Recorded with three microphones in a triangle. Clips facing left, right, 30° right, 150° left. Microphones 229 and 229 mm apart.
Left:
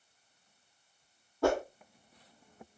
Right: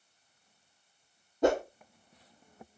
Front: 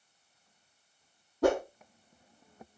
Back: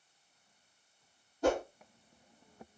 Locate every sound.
1.4 s a whoosh: 20° right, 0.9 m